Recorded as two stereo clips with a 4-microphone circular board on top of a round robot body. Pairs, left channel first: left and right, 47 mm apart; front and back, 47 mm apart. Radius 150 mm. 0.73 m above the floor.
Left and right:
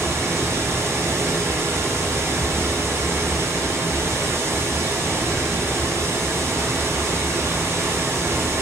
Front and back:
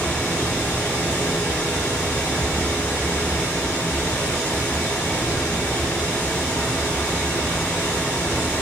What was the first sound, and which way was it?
Running water, 65° right.